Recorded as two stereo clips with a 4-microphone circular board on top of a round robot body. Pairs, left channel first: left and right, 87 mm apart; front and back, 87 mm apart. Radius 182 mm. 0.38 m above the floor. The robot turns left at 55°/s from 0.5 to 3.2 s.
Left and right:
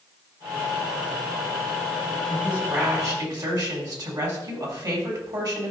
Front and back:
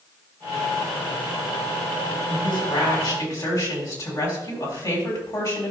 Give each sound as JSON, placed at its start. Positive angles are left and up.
{"t": 2.3, "sound": "a woman speaking", "azimuth_deg": 0, "distance_m": 3.5}